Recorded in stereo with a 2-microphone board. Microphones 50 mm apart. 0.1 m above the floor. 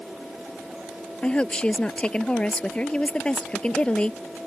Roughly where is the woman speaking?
Left.